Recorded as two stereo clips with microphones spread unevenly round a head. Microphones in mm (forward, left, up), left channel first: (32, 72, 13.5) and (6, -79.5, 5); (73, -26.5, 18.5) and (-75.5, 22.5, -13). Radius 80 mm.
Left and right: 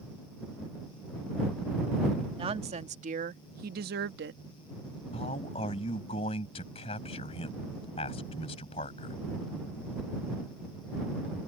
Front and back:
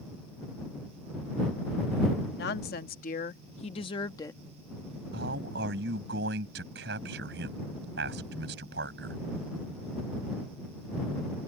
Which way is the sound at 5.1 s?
140° left.